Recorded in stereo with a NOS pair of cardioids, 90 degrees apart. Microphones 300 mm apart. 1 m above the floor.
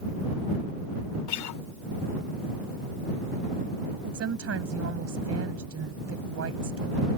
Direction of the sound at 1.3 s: 70° left.